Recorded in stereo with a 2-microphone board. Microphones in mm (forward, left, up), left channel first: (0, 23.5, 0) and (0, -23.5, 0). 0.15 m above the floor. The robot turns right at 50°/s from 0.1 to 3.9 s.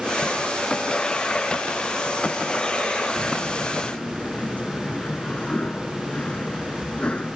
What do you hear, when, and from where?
3.2 s a sliding door: straight ahead; by 7.4 s 40° left